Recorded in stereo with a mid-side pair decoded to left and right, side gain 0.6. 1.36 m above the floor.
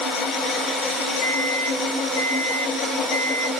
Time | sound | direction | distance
1.2 | a microwave | 65° left | 1.9 m